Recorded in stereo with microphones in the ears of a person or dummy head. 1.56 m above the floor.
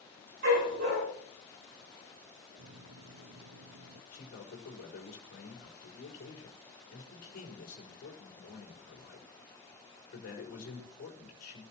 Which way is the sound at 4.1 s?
60° left (ahead or behind).